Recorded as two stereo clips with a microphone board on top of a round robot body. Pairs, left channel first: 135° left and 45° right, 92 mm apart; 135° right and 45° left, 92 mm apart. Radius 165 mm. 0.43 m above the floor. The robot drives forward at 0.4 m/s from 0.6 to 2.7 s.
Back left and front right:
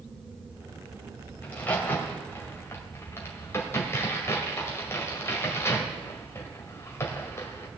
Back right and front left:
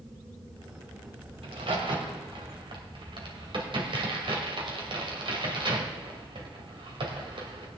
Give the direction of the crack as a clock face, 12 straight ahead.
10 o'clock.